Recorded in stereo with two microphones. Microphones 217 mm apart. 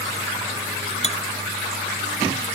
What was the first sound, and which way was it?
Cutlery clinking, 30° left (ahead or behind).